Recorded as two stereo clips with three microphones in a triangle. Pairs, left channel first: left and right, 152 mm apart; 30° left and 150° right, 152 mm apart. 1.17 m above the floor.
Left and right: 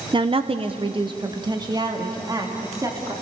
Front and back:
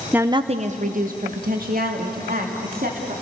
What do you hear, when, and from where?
0.1 s a woman speaking: 75° right, 0.7 m; by 3.1 s 155° right, 3.5 m